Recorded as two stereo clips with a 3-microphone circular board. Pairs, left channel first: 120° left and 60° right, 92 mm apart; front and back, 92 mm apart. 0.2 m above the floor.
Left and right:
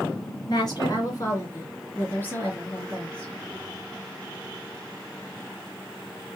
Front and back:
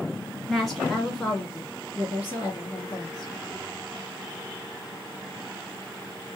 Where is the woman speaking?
95° left, 2 m; by 3.3 s 35° left, 1.9 m.